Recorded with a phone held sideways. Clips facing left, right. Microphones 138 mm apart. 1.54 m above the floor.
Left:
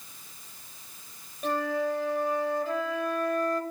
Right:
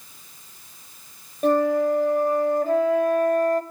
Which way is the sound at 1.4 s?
50° right (ahead or behind).